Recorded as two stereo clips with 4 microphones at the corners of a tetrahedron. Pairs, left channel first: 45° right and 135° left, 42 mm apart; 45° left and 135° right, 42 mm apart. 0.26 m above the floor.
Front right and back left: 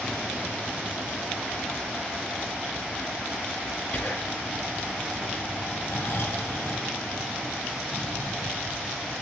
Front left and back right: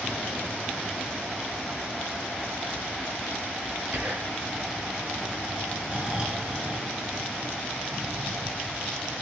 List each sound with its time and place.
3.9 s whispering: 95° right, 5.5 m
5.9 s snoring: 70° right, 2.5 m